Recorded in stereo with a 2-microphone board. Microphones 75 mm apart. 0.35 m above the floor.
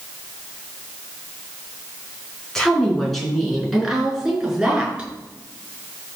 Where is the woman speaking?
5° left (ahead or behind), 4.5 m; by 5.1 s 10° right (ahead or behind), 5 m.